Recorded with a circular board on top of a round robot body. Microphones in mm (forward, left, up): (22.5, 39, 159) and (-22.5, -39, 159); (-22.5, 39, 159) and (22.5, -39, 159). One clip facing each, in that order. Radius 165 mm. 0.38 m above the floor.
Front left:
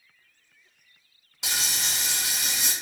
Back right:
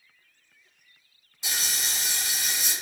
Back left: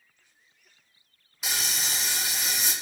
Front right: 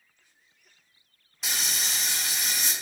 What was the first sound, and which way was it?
Frying, 35° left.